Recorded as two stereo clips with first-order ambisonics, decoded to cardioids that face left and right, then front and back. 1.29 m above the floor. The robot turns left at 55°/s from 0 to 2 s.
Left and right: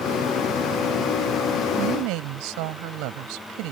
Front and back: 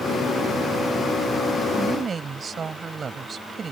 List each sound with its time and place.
1.8 s a woman speaking: 100° right; by 3.7 s 110° right